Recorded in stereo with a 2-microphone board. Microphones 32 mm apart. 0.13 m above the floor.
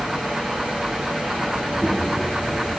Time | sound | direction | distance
1.6 | a child speaking | 20° left (ahead or behind) | 8.5 m